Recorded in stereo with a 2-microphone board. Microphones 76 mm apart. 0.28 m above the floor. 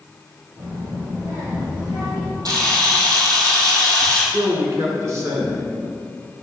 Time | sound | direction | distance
0.6 | a child speaking | 75° right (ahead or behind) | 4 m
2.5 | a camera shutter | 55° right (ahead or behind) | 2.5 m
4.3 | a man speaking | 40° right (ahead or behind) | 2.5 m